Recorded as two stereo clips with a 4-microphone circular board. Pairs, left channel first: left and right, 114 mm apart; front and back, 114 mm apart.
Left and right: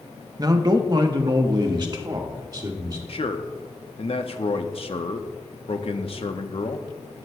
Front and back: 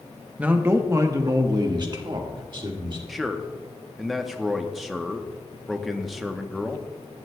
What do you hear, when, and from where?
0.4 s a man speaking: 110° right, 0.8 m; by 3.0 s 140° right, 1.8 m
3.1 s a man speaking: 90° left, 0.8 m